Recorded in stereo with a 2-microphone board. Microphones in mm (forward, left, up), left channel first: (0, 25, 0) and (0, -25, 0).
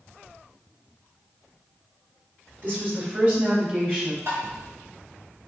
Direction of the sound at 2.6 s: 40° right (ahead or behind).